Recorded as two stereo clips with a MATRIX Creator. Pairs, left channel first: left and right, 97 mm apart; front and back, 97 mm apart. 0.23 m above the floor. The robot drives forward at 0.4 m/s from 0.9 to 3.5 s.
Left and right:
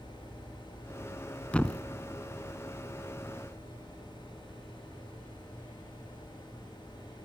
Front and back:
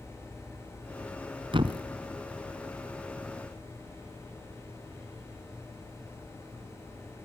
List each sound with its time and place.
1.5 s a thud: 165° left, 1.1 m